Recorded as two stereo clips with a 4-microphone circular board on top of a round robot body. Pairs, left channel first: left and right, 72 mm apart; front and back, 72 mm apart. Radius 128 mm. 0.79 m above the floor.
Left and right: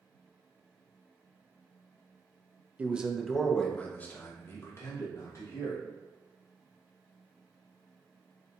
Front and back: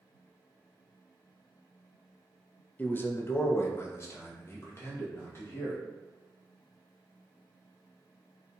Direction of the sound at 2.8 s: 40° right.